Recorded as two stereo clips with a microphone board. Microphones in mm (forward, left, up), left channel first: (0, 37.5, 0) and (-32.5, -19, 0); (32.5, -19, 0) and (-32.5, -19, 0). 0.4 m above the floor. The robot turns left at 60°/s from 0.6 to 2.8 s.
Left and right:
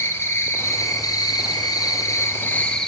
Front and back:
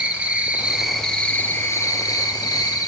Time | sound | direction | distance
0.0 | an insect | 110° left | 1.5 m